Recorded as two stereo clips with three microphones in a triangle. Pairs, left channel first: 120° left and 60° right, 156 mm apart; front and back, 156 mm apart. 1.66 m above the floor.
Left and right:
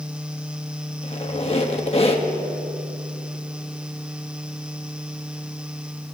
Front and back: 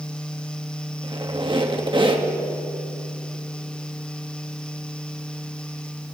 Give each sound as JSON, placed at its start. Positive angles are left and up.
{"t": 1.0, "sound": "a squeak", "azimuth_deg": 140, "distance_m": 1.2}